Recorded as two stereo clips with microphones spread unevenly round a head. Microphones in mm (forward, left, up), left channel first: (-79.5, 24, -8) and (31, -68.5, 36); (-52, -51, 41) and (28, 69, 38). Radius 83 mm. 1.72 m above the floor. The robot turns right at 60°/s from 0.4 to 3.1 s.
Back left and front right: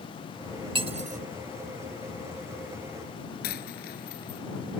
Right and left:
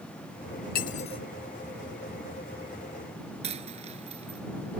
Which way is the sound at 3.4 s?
105° left.